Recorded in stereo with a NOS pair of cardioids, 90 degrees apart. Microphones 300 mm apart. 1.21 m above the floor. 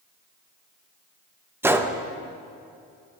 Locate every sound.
1.6 s a gunshot: 5° right, 0.9 m